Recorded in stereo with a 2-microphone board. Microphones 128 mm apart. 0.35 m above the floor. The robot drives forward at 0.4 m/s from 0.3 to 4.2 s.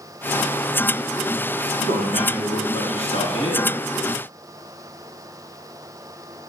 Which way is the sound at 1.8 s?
50° left (ahead or behind).